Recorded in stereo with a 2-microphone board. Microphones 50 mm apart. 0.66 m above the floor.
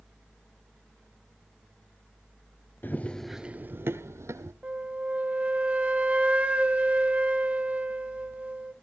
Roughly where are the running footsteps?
Left.